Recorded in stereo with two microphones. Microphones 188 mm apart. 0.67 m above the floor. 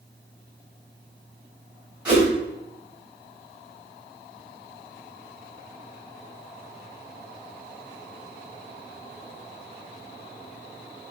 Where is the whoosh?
5° right (ahead or behind), 3 m.